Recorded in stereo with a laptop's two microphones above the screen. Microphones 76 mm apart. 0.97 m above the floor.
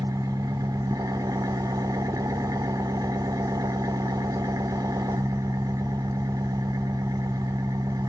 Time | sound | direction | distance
0.0 | an engine running | 55° right (ahead or behind) | 1.0 m